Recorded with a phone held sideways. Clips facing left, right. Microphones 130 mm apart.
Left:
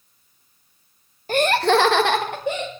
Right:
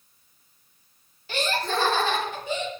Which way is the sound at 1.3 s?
45° left (ahead or behind).